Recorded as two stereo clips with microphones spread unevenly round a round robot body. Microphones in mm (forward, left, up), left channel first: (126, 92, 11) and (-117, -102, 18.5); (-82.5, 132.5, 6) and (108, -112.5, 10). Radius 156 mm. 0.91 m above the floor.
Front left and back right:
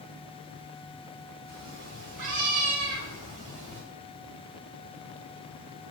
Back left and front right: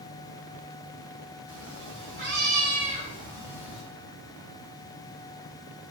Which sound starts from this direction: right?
A cat meowing, at 1.5 s.